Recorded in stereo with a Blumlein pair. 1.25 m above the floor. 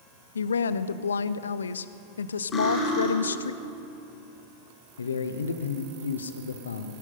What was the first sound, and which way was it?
A woman speaking, 70° left.